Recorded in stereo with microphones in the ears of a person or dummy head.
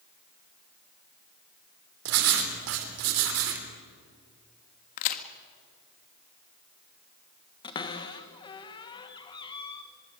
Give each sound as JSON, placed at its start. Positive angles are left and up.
{"t": 2.0, "sound": "writing", "side_deg": -75, "distance_m": 3.5}
{"t": 5.0, "sound": "a crack", "side_deg": 45, "distance_m": 1.6}
{"t": 7.6, "sound": "a cupboard door", "side_deg": 25, "distance_m": 1.9}